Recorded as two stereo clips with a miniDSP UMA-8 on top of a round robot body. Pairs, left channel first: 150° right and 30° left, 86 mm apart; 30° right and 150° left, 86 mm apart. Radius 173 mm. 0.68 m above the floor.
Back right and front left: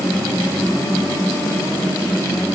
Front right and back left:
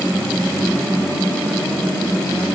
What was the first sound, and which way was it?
Only background noise.